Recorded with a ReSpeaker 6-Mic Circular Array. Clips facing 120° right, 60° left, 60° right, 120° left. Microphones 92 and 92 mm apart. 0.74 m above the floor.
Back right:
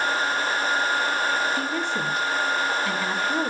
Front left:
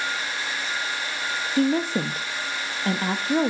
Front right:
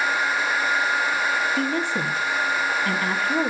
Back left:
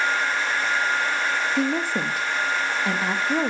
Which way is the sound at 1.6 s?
60° left.